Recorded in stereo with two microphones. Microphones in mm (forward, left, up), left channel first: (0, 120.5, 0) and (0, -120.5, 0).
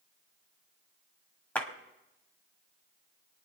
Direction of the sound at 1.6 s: 5° left (ahead or behind).